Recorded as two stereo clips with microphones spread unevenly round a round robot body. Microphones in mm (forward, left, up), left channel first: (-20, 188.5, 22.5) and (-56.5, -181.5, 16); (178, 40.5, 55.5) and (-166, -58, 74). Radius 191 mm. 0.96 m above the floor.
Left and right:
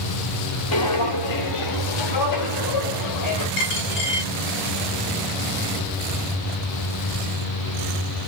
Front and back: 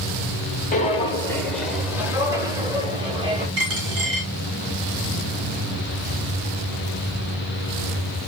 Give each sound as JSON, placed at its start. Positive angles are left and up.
{"t": 0.7, "sound": "footsteps", "azimuth_deg": 80, "distance_m": 1.1}
{"t": 3.6, "sound": "a dropped coin", "azimuth_deg": 145, "distance_m": 5.0}